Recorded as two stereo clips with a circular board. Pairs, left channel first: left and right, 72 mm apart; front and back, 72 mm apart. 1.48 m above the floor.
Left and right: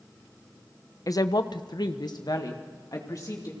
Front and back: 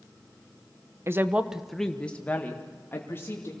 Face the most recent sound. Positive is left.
turn(degrees=55)